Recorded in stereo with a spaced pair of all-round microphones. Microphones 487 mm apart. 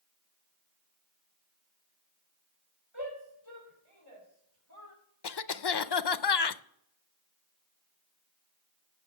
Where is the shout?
55° left (ahead or behind), 5 m; by 5.0 s 25° left (ahead or behind), 5.5 m.